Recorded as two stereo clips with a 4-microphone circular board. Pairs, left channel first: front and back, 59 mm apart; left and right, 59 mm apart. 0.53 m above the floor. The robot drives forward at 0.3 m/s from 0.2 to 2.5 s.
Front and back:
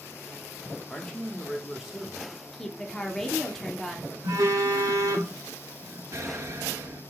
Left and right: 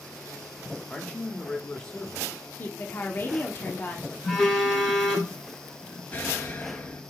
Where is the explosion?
150° left, 0.7 m.